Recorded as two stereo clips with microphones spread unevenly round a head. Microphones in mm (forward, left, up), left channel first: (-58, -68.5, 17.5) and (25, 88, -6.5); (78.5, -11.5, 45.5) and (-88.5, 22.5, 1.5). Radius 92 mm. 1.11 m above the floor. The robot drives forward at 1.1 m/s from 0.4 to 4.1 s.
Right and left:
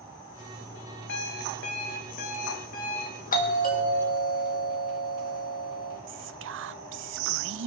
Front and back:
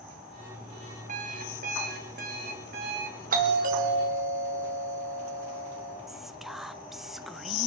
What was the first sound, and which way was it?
An alarm clock, 140° right.